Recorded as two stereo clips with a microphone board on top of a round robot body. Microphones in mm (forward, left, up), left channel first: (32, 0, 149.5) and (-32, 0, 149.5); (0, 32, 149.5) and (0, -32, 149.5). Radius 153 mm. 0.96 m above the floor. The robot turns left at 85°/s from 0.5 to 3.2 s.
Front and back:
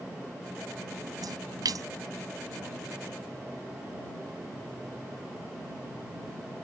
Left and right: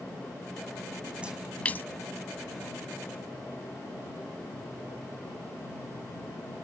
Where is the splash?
160° right; by 1.9 s 145° left.